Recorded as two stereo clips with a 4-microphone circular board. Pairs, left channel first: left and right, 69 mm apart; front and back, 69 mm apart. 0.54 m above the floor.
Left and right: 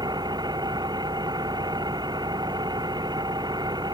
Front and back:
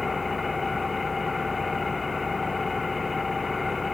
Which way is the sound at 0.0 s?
90° right.